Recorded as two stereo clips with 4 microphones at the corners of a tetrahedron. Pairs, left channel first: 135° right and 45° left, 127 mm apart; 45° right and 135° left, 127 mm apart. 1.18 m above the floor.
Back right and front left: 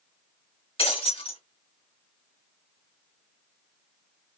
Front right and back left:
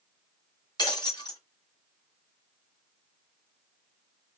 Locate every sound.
0.8 s breaking glass: 100° right, 2 m